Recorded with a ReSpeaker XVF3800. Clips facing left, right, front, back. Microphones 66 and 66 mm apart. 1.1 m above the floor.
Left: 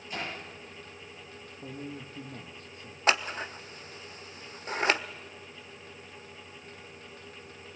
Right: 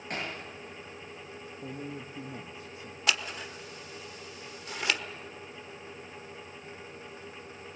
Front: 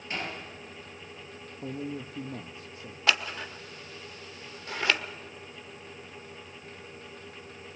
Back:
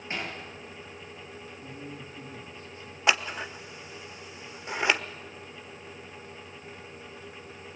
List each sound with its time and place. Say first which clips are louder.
0.1 s hammering: right 1 dB, even; 115° right, 9.5 m
1.6 s a man speaking: even, front 9 dB; 5° right, 1.3 m
3.1 s scissors: left 4 dB, back 2 dB; 120° left, 0.9 m